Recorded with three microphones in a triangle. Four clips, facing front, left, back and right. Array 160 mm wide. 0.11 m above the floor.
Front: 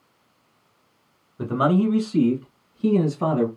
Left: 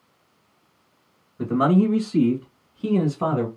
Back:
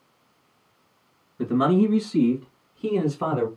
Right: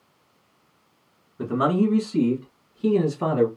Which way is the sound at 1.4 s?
10° right.